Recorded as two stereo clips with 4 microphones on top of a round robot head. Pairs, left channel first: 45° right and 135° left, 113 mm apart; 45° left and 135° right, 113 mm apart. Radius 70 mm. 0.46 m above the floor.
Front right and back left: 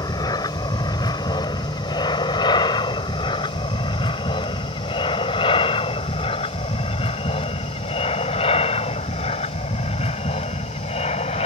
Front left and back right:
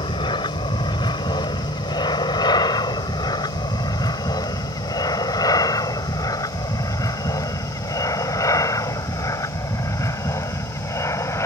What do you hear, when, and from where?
0.0 s an aircraft: 5° left; by 11.5 s 20° right